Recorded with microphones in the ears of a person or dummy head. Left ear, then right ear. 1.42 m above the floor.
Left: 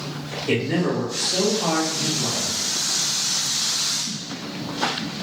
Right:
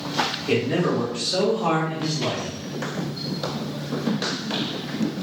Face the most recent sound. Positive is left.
turn(degrees=-45)  # may be behind; listen again after turning